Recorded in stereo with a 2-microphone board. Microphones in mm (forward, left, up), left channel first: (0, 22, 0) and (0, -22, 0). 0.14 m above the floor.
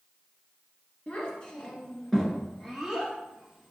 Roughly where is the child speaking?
Left.